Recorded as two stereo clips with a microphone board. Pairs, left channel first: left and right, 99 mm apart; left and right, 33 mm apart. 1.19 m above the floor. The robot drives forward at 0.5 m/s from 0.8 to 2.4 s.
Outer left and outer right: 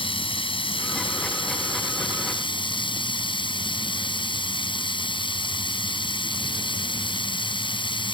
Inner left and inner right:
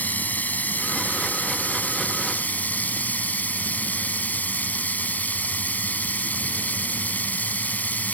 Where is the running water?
65° left (ahead or behind); by 8.1 s 60° left (ahead or behind).